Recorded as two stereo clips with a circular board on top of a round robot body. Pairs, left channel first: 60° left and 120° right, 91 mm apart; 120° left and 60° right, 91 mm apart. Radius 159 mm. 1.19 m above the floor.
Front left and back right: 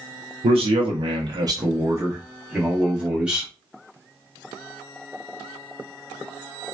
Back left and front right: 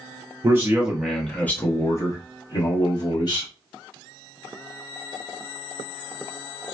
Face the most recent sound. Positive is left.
turn(degrees=160)